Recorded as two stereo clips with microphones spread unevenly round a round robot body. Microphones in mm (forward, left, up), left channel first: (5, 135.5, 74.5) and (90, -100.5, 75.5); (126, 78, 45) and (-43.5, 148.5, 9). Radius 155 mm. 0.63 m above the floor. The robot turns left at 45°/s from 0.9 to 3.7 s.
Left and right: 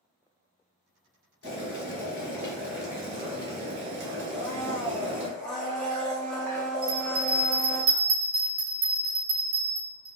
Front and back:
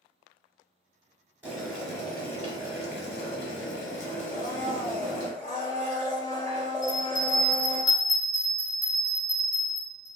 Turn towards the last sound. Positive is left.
turn(degrees=-35)